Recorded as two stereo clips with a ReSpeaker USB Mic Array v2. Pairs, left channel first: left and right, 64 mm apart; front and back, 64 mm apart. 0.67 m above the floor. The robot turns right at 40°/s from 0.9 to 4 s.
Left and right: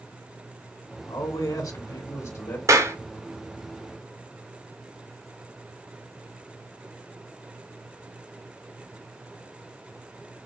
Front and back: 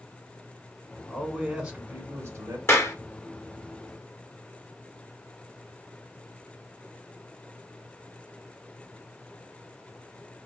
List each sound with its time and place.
1.1 s a man speaking: 85° left, 2 m; by 2.6 s 145° left, 2 m
2.7 s a clap: 50° right, 1.3 m; by 3.0 s 40° right, 1.3 m